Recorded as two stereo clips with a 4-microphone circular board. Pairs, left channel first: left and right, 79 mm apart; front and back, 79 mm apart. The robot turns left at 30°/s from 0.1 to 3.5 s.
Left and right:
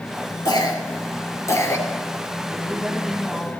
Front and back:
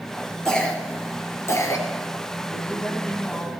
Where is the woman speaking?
20° left, 1.7 m; by 3.5 s 10° right, 1.7 m.